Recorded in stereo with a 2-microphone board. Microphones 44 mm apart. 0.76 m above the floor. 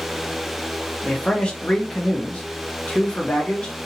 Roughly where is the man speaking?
Left.